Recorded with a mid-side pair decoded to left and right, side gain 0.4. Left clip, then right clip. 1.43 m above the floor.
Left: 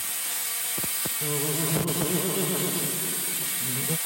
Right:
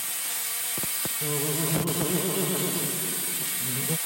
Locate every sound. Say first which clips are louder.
1.2 s laughter: even; 5° right